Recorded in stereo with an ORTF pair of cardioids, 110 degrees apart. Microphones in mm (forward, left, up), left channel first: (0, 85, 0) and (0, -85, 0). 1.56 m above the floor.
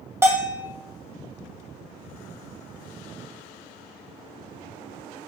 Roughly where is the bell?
Ahead.